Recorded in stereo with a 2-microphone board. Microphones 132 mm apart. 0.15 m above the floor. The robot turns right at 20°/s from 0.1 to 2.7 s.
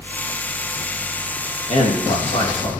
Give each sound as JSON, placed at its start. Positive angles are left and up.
{"t": 1.7, "sound": "a man speaking", "side_deg": 60, "distance_m": 6.0}